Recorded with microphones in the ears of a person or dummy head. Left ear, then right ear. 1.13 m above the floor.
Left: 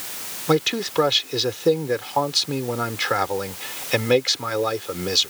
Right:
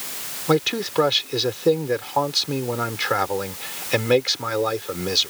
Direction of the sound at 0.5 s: 5° left (ahead or behind).